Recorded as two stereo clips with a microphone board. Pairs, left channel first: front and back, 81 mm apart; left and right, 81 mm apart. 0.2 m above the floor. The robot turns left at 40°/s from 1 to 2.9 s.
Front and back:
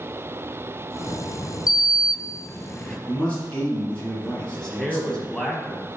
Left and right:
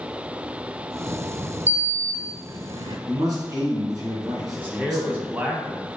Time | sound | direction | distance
1.7 | a sliding door | 25° right | 0.6 m
3.1 | a man speaking | 70° right | 2.5 m
4.5 | a man speaking | 65° right | 1.0 m